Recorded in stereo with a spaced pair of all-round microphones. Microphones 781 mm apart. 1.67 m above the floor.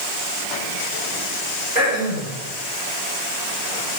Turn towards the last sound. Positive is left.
turn(degrees=-65)  # may be behind; listen again after turning